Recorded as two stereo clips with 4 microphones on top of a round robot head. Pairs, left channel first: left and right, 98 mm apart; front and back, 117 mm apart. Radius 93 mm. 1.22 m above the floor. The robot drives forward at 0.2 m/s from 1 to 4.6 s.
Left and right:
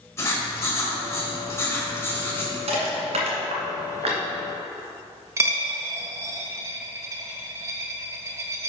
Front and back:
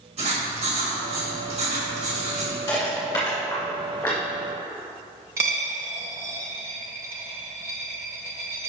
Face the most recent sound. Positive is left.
turn(degrees=-120)